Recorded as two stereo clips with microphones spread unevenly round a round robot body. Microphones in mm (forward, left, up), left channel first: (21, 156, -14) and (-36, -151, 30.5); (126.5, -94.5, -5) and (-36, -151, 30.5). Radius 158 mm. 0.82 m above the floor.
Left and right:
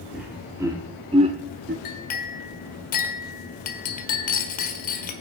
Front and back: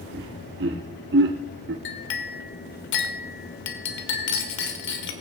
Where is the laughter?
170° left, 2.0 m; by 1.8 s 165° right, 1.3 m.